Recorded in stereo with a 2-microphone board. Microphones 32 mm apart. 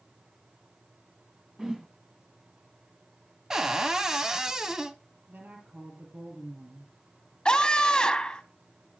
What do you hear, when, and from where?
1.6 s a whoosh: 15° right (ahead or behind), 1.8 m
3.5 s a cupboard door: 15° right (ahead or behind), 1.0 m
5.3 s a woman speaking: 55° right (ahead or behind), 5.5 m
7.5 s a scream: 25° left (ahead or behind), 1.4 m